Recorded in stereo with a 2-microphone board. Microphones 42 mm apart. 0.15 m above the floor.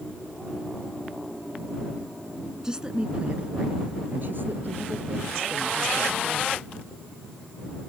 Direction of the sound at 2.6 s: 15° right (ahead or behind).